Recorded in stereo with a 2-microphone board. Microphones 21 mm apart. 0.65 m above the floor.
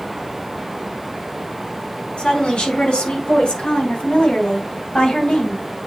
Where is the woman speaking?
80° left, 6 m; by 5.6 s 70° left (ahead or behind), 4 m.